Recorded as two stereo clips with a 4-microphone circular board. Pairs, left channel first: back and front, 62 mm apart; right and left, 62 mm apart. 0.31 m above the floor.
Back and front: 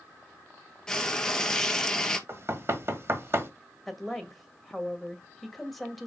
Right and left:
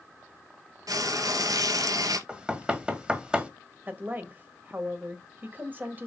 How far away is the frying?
About 1.3 m.